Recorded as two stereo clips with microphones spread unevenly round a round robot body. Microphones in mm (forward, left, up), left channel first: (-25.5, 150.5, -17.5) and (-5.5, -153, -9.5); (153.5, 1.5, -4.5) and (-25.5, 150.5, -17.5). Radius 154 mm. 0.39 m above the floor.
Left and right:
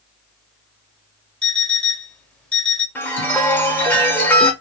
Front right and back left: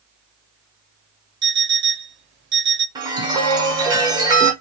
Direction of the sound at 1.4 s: Straight behind.